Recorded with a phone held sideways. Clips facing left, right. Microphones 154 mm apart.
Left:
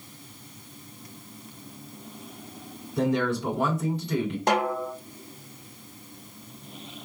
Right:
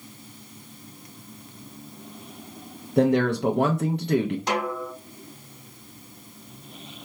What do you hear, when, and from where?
3.0 s a man speaking: 65° right (ahead or behind), 0.6 m
4.5 s a snare drum: 50° left (ahead or behind), 0.8 m